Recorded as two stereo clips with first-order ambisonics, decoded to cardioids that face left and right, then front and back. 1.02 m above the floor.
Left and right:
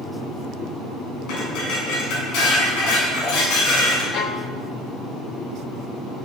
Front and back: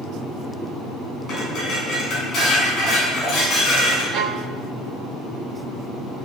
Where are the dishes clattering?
70° left, 6.5 m.